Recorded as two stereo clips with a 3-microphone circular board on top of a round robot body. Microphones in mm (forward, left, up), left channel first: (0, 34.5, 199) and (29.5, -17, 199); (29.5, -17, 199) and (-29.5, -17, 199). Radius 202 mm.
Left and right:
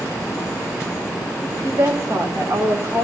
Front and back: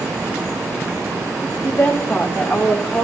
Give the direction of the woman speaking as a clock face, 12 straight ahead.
2 o'clock.